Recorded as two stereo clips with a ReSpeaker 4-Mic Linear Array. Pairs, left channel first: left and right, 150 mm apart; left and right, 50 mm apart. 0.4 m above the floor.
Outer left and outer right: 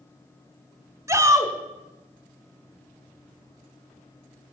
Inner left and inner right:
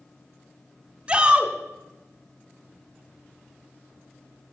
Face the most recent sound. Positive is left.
turn(degrees=-20)  # may be behind; listen again after turning